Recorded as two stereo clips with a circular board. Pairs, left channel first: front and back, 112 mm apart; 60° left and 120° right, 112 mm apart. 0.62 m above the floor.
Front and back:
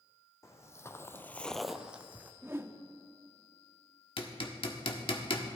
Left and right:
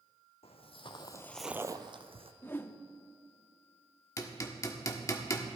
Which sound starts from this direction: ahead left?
Footsteps, at 0.4 s.